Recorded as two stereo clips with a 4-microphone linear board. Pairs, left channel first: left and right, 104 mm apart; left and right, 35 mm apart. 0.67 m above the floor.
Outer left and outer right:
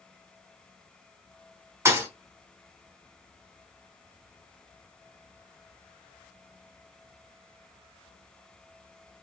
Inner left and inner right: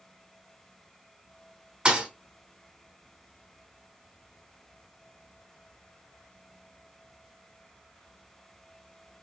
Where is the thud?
25° right (ahead or behind), 1.0 m.